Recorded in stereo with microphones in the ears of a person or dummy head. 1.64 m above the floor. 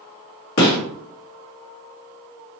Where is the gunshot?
60° left (ahead or behind), 1.6 m.